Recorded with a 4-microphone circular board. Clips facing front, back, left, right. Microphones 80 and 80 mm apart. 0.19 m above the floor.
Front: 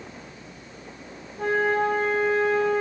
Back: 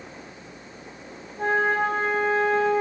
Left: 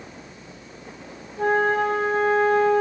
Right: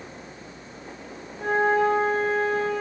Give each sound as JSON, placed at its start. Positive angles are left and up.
{"t": 1.4, "sound": "a flute", "azimuth_deg": 120, "distance_m": 6.5}